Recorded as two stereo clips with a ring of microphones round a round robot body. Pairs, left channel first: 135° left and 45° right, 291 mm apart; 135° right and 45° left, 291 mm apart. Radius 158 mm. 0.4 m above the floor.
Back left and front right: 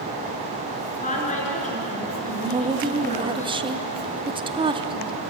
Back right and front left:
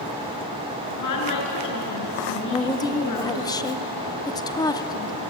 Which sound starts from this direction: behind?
A woman speaking, at 0.9 s.